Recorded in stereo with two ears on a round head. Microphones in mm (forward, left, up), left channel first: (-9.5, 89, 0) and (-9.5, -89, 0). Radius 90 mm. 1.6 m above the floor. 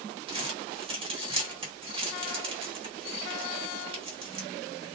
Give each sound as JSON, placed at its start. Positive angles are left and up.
{"t": 0.3, "sound": "crumpling", "side_deg": -30, "distance_m": 1.4}